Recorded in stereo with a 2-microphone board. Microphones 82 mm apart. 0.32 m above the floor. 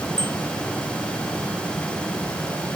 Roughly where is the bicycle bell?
Right.